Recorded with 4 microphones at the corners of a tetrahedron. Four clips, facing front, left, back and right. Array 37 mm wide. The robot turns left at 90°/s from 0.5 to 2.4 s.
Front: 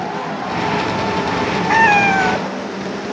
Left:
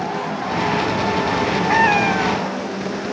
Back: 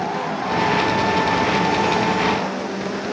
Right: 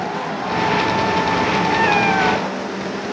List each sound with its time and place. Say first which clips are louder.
1.7 s a cat meowing: left 2 dB, front 7 dB; 25° left; by 2.5 s 40° right